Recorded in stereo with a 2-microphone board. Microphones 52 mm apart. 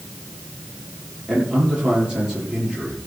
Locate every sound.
1.3 s a man speaking: 15° right (ahead or behind), 7.5 m